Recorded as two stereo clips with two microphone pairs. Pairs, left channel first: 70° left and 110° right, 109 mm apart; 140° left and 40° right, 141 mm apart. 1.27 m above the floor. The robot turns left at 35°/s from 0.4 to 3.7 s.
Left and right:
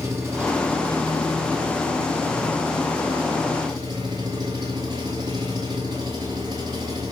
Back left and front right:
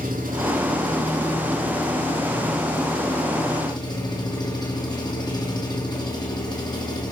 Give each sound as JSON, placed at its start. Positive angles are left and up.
{"t": 0.0, "sound": "an engine running", "azimuth_deg": -45, "distance_m": 6.0}